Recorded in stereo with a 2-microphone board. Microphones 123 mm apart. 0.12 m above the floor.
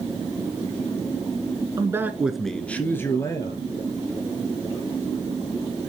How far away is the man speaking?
About 1.2 m.